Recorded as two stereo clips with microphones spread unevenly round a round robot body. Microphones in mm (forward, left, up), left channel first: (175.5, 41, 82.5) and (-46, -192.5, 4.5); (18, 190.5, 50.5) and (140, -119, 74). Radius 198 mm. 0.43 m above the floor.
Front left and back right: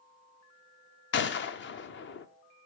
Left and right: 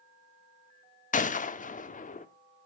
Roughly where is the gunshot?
Left.